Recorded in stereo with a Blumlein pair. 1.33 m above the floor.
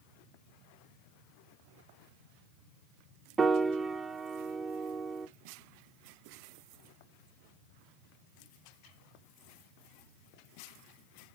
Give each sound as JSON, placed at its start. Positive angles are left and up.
{"t": 3.4, "sound": "a piano", "azimuth_deg": -15, "distance_m": 0.5}